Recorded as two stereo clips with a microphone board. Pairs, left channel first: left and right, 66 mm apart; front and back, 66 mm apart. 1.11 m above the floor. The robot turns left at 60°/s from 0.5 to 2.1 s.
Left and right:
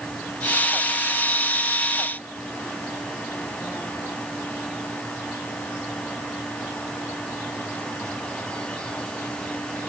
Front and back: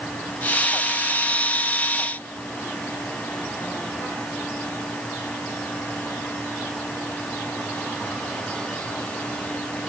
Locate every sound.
Only background noise.